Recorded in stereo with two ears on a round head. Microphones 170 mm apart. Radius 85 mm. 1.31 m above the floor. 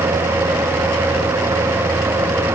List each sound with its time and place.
Only background noise.